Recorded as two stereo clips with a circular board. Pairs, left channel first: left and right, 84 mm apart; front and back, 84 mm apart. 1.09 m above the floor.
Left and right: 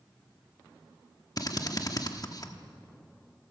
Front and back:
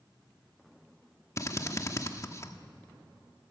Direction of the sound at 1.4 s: 50° left.